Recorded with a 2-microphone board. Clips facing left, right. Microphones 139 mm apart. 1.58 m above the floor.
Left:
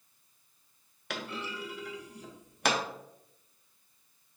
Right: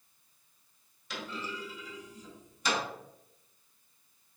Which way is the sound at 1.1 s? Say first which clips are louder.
Left 1 dB; 65° left (ahead or behind).